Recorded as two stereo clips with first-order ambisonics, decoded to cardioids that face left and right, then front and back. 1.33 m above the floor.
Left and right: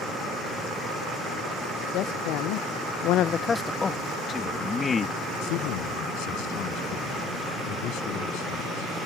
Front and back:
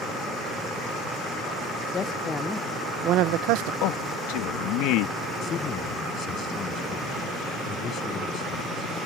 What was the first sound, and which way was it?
A man speaking, 60° left.